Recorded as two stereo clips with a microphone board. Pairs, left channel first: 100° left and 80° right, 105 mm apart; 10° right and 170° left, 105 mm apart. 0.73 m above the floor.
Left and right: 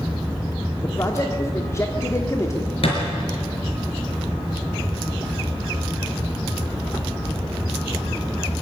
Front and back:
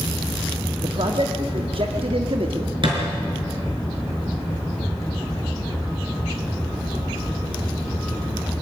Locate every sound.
0.8 s a man speaking: 160° left, 1.5 m
2.8 s a thud: 130° left, 5 m